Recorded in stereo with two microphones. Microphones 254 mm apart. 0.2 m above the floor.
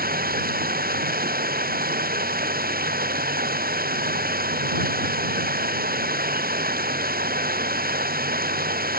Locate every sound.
0.0 s running water: 35° right (ahead or behind)